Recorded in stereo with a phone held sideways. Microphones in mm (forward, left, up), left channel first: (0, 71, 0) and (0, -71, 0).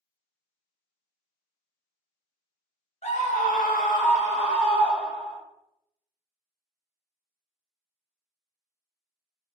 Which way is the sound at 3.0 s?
50° left (ahead or behind).